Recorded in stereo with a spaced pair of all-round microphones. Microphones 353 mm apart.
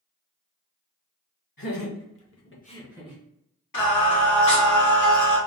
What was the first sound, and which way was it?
Laughter, 70° left (ahead or behind).